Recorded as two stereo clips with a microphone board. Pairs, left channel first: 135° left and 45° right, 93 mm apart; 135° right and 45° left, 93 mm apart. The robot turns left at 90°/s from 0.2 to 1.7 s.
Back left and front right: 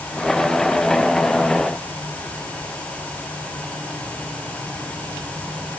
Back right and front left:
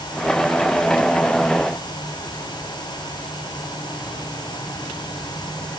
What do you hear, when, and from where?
Only background noise.